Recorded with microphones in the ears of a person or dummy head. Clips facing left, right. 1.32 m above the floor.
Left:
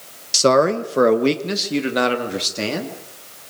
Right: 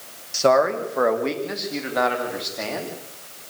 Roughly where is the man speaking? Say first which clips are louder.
Left 2 dB; left.